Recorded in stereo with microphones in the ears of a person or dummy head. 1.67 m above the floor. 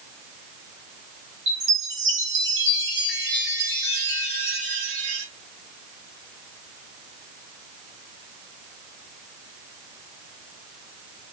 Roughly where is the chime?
Right.